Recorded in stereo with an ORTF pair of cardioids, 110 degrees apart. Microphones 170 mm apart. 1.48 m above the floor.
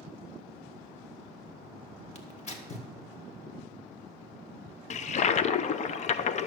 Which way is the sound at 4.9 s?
40° left.